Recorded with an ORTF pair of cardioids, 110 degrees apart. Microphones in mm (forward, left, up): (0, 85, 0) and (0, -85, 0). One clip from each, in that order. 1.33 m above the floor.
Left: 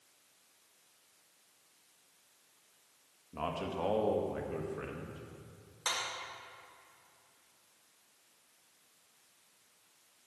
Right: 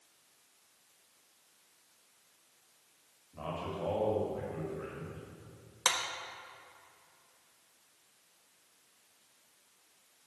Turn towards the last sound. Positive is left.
turn(degrees=-55)